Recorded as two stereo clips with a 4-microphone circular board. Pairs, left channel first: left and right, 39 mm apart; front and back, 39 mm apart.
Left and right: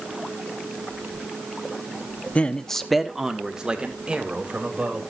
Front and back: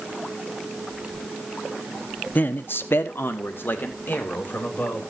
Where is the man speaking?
40° left, 0.9 m; by 5.0 s 35° right, 3.5 m.